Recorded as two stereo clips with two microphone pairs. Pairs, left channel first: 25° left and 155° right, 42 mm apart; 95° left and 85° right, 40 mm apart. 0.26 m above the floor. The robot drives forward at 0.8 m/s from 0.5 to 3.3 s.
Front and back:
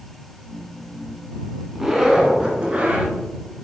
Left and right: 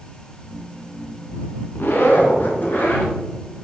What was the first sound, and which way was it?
A zipper, 120° left.